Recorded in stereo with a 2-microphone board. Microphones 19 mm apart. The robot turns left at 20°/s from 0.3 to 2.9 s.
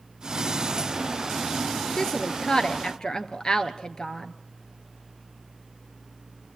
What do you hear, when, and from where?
2.0 s a woman speaking: 30° left (ahead or behind), 1.4 m; by 4.3 s 40° left (ahead or behind), 1.4 m